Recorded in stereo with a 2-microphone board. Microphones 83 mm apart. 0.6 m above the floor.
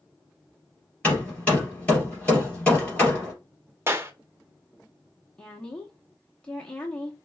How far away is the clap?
About 0.7 m.